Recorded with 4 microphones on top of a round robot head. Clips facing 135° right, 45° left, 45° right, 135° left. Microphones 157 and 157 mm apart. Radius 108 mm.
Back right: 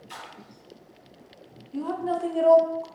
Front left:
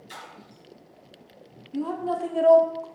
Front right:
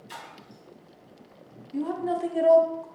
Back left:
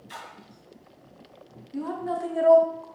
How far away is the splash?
About 2 m.